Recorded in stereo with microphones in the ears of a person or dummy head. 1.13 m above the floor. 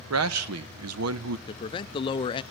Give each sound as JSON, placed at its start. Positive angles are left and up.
{"t": 0.1, "sound": "a man speaking", "side_deg": -80, "distance_m": 0.9}
{"t": 1.5, "sound": "a man speaking", "side_deg": 25, "distance_m": 0.5}